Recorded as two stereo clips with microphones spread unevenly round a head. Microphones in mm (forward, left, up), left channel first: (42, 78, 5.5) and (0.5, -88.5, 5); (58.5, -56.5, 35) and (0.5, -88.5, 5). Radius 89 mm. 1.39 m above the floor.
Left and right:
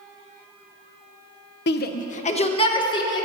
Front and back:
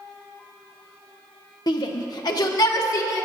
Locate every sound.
1.7 s a shout: 50° left, 0.6 m; by 3.3 s 10° left, 1.6 m